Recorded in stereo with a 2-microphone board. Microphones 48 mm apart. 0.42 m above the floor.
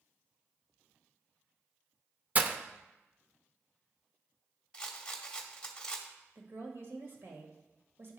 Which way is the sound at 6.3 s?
55° right (ahead or behind).